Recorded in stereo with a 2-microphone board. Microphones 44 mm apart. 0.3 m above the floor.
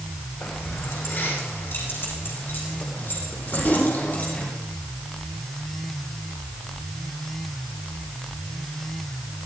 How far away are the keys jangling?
About 10 m.